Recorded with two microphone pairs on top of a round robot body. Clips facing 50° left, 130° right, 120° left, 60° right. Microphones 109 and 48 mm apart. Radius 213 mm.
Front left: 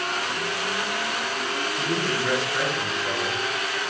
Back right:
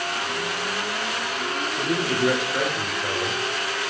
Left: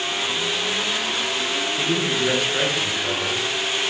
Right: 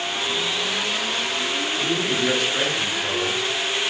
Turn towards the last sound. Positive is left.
turn(degrees=-160)